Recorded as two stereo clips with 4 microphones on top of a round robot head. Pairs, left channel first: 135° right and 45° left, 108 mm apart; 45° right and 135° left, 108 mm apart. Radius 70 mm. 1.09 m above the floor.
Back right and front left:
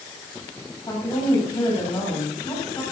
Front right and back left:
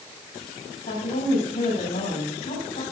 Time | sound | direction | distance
0.9 | a woman speaking | 70° right | 7 m